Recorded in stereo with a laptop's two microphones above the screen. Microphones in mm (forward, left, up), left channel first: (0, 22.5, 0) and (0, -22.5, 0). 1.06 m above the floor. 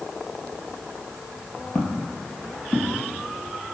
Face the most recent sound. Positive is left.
turn(degrees=25)  # may be behind; listen again after turning